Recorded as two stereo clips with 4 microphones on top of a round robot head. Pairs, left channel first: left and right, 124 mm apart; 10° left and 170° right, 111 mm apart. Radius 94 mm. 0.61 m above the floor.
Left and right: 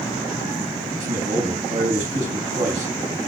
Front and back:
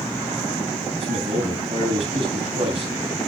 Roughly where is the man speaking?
Behind right.